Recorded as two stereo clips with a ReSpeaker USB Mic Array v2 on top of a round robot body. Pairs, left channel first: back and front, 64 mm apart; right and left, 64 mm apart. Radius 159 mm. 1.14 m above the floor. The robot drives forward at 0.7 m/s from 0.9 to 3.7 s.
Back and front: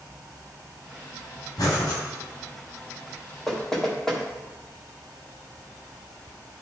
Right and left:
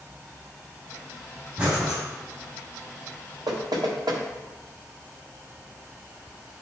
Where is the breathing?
150° left, 3.5 m; by 2.0 s 155° left, 4 m.